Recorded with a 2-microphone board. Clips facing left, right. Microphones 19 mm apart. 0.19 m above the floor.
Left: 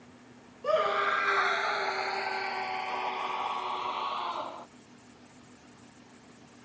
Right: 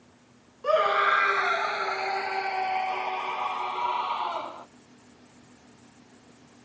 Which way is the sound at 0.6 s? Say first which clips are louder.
Right 5 dB; 15° right (ahead or behind).